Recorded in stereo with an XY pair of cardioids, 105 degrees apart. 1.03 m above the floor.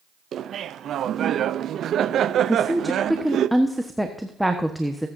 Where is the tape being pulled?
No tape being pulled in this recording.